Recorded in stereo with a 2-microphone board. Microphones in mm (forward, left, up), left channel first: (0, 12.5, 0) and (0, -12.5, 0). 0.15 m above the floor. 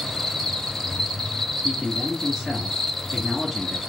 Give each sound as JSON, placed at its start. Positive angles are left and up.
{"t": 0.0, "sound": "an insect", "side_deg": 10, "distance_m": 1.0}
{"t": 1.6, "sound": "a man speaking", "side_deg": -10, "distance_m": 2.5}